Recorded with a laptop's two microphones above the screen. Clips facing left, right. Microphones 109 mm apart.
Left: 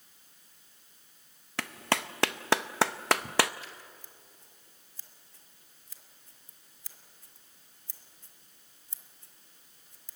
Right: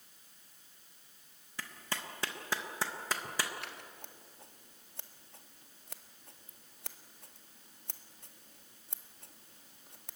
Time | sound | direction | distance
1.6 | a clap | 80° left | 0.5 m
3.6 | scissors | 65° right (ahead or behind) | 1.5 m